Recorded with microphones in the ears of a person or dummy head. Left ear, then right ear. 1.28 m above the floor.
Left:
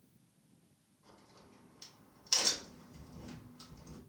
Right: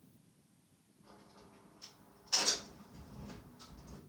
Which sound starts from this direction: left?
A crack, at 1.0 s.